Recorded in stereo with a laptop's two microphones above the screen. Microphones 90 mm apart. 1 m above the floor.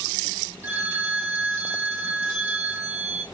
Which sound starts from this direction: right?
A phone ringing, at 0.6 s.